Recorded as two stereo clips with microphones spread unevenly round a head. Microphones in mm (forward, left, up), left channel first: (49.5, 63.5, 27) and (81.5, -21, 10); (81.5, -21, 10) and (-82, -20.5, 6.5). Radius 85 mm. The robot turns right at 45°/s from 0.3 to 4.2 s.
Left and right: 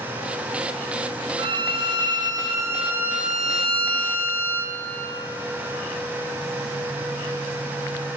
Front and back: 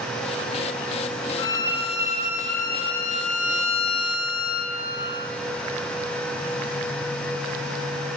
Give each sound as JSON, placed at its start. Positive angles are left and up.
{"t": 1.4, "sound": "a violin", "azimuth_deg": -65, "distance_m": 0.8}